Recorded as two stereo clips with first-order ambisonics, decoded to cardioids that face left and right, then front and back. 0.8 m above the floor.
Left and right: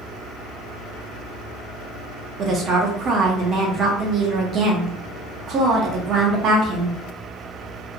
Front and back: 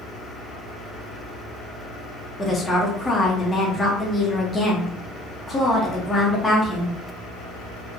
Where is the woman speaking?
80° right, 0.6 m.